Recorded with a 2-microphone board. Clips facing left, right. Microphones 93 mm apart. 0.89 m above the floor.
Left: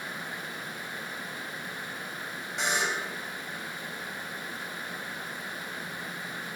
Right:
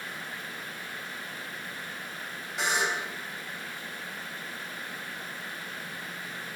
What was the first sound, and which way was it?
A buzzer, centre (ahead or behind).